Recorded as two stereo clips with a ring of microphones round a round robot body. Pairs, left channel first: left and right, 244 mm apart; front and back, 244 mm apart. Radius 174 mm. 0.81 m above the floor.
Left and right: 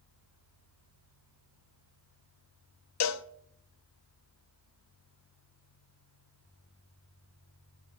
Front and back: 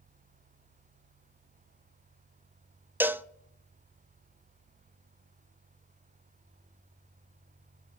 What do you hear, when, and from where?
3.0 s a cowbell: 95° left, 0.7 m